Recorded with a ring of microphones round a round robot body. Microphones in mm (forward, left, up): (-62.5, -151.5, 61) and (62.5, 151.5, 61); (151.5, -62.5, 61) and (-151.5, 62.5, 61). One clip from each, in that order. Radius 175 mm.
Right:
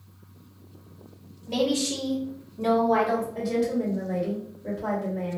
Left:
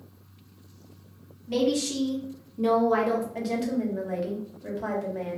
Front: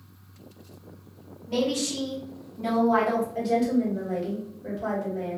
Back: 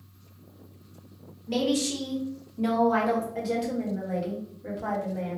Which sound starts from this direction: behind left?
A woman speaking, at 1.5 s.